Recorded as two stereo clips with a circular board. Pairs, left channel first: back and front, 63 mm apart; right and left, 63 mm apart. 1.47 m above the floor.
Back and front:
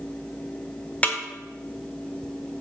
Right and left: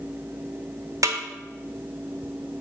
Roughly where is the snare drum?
Behind left.